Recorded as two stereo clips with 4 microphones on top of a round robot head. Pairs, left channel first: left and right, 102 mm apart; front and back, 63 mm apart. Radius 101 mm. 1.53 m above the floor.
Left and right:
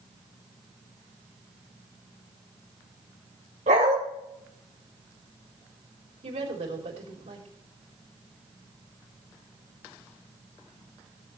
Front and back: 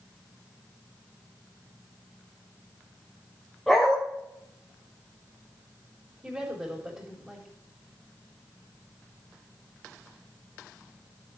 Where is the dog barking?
85° right, 2 m.